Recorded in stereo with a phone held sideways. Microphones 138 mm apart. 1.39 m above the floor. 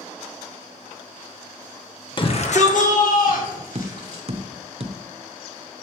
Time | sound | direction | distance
2.2 | a shout | 35° left (ahead or behind) | 1.1 m
3.8 | tapping | 45° right (ahead or behind) | 0.6 m